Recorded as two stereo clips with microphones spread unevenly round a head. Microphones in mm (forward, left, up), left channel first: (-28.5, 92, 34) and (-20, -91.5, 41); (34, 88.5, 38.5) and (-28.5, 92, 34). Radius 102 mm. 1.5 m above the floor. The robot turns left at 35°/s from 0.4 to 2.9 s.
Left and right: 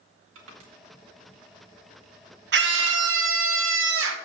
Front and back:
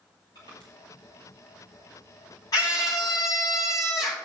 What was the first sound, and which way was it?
Crushing, 55° right.